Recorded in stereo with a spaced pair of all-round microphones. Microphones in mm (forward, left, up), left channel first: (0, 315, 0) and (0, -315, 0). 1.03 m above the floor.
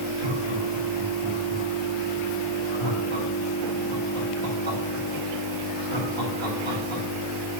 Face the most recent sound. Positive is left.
turn(degrees=-50)  # may be behind; listen again after turning